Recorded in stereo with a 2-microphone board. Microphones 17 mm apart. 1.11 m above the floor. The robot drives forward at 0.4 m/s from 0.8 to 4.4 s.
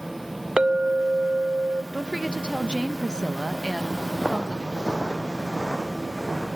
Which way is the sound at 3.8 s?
60° right (ahead or behind).